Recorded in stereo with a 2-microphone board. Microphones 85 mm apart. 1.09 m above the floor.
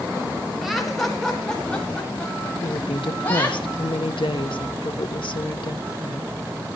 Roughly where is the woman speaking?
Left.